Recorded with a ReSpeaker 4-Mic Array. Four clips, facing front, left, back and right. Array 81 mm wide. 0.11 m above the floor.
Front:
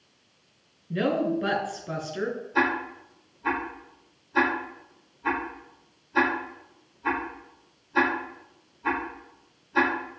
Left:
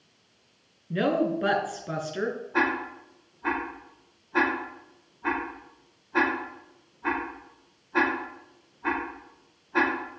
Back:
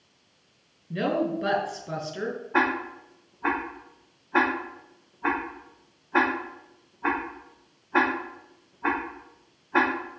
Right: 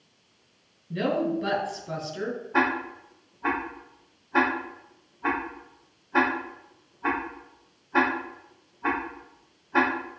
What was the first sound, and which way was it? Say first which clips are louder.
A woman speaking: left 1 dB, front 1 dB; 75° left.